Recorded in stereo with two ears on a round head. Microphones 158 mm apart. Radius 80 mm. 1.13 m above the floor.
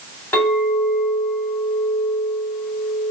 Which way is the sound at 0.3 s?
10° left (ahead or behind).